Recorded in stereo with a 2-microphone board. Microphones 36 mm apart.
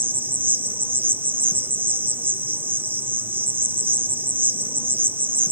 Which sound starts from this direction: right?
An insect, at 0.0 s.